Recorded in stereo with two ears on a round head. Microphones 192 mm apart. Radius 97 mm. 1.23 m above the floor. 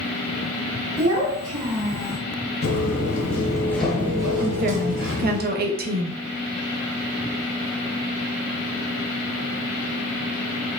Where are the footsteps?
45° left (ahead or behind), 1.7 m; by 5.4 s 50° right (ahead or behind), 1.9 m.